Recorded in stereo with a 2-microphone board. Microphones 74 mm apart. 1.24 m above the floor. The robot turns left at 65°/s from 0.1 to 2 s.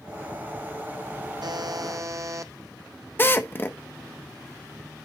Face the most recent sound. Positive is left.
turn(degrees=30)  # may be behind; listen again after turning